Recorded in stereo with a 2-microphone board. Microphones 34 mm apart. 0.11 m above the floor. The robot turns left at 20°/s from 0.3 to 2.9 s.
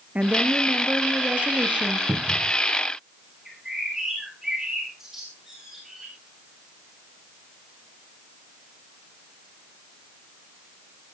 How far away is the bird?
About 8.5 m.